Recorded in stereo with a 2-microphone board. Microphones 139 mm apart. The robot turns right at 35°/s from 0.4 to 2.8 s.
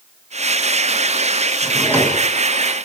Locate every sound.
1.6 s a drawer: 5° right (ahead or behind), 6.5 m; by 2.3 s 30° right (ahead or behind), 6.5 m